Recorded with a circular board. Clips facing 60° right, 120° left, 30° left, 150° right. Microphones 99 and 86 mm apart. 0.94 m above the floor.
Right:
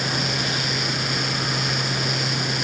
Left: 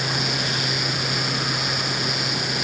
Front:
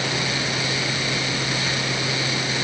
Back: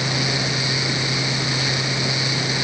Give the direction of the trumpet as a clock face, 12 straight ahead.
I don't hear a trumpet.